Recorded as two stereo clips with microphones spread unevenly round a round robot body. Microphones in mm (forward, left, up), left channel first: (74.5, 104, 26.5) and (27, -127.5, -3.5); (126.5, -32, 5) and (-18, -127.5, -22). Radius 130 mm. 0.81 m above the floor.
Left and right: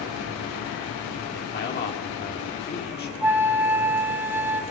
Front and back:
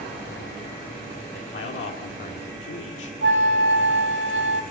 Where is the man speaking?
30° left, 2.5 m.